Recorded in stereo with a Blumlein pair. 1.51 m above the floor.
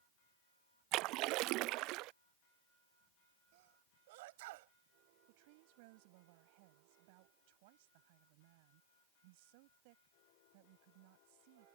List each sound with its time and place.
0.9 s a splash: 40° right
3.5 s a sneeze: 50° right
5.3 s a woman speaking: 45° right